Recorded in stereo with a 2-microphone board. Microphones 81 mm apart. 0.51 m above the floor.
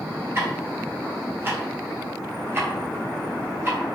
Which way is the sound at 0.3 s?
30° right (ahead or behind).